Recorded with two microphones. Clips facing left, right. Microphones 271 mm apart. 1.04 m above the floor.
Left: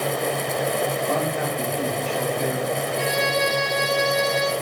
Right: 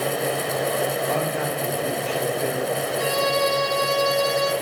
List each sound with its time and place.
1.1 s a man speaking: 40° left (ahead or behind), 7 m; by 2.9 s 50° left (ahead or behind), 7 m
3.0 s a violin: 75° left (ahead or behind), 5.5 m